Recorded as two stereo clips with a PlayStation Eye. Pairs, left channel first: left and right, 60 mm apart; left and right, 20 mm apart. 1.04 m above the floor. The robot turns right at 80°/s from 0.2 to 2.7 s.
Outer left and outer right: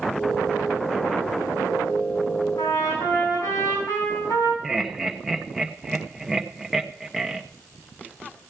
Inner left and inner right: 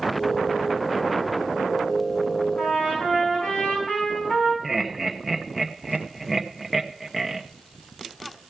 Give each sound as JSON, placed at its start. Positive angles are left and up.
{"t": 2.6, "sound": "a trumpet", "side_deg": 75, "distance_m": 7.0}
{"t": 4.6, "sound": "laughter", "side_deg": -5, "distance_m": 0.8}